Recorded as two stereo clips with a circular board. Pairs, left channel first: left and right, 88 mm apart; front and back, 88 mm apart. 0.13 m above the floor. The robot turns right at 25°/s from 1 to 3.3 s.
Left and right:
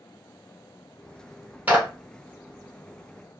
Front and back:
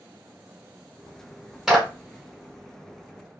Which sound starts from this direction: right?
A clap, at 1.7 s.